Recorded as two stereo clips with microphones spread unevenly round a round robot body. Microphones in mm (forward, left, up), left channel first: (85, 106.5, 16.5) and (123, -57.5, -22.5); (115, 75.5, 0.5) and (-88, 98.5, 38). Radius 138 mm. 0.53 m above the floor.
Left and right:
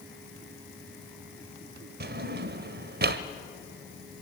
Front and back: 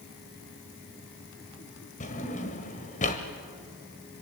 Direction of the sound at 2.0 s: 65° right.